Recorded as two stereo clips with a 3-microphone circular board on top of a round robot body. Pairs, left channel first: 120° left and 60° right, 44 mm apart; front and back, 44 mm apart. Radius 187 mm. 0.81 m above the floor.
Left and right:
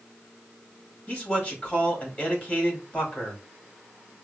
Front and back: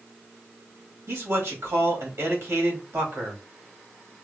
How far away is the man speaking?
About 2.5 m.